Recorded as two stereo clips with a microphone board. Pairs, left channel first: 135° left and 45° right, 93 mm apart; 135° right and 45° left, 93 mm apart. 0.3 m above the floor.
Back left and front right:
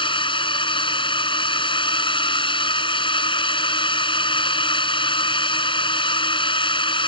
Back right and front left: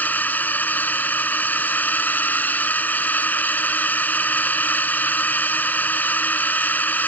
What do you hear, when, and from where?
0.0 s a drone: 155° left